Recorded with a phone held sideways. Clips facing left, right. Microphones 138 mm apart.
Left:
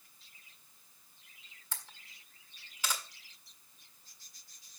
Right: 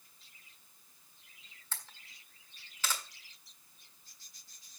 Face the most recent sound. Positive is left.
turn(degrees=15)  # may be behind; listen again after turning